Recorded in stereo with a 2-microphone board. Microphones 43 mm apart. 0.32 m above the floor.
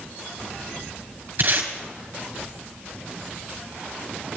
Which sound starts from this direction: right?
Tape being pulled, at 1.4 s.